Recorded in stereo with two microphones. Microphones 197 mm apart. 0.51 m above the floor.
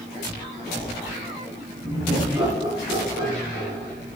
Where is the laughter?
10° right (ahead or behind), 5.5 m; by 3.9 s 25° right (ahead or behind), 5.5 m.